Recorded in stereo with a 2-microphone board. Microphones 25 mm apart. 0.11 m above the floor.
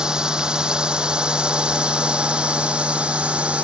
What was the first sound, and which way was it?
A drone, 35° right (ahead or behind).